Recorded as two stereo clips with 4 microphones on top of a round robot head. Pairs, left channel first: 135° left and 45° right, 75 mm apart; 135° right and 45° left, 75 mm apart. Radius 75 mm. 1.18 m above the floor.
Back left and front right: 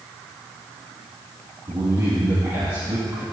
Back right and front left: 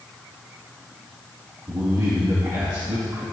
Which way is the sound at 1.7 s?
5° right.